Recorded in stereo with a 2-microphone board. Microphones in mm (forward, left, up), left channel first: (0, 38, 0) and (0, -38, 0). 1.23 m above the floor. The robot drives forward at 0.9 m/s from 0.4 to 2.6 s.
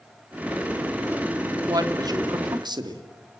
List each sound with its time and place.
1.6 s a man speaking: 55° right (ahead or behind), 3 m; by 3.0 s 70° right (ahead or behind), 2.5 m